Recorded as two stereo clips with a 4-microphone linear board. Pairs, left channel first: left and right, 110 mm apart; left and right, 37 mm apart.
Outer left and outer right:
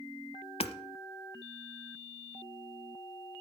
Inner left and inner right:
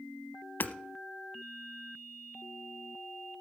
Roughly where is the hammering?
Left.